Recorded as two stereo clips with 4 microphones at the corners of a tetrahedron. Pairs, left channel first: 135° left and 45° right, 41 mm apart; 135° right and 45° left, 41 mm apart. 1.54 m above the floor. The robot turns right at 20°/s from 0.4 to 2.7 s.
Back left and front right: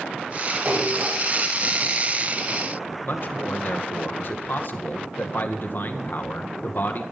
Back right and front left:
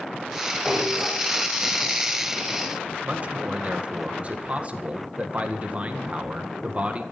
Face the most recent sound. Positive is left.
turn(degrees=100)